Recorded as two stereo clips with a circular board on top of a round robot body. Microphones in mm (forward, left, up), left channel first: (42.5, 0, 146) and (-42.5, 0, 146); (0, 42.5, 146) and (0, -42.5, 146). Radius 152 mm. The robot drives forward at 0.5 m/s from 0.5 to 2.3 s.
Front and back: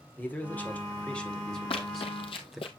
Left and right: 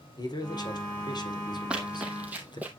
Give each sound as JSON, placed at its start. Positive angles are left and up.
{"t": 0.2, "sound": "a man speaking", "azimuth_deg": 70, "distance_m": 2.5}
{"t": 1.7, "sound": "running footsteps", "azimuth_deg": -10, "distance_m": 0.9}